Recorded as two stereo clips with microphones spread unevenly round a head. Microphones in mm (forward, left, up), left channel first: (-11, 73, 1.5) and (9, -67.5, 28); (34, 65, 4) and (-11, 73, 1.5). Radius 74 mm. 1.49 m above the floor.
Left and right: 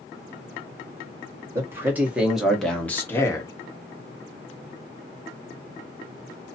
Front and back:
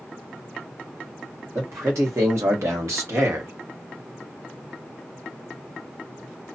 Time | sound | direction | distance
1.6 | a man speaking | 155° right | 1.5 m